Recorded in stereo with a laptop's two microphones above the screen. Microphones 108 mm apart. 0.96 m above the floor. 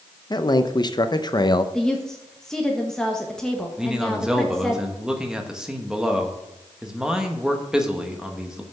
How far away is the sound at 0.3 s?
About 0.6 m.